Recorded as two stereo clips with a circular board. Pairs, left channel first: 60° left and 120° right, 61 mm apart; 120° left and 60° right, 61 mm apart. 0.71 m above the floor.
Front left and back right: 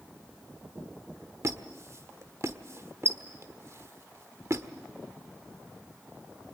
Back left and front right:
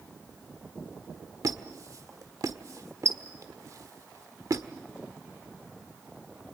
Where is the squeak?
80° right, 1.5 m.